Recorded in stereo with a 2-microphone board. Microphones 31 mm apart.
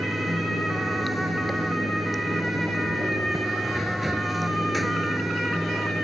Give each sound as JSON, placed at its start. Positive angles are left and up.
{"t": 0.0, "sound": "running water", "side_deg": 0}